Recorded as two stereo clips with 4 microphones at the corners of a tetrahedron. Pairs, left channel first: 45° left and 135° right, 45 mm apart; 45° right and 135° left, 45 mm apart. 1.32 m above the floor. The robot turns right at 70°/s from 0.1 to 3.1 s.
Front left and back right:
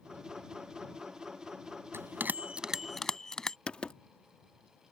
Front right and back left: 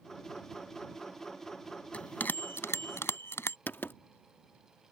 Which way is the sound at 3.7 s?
20° right.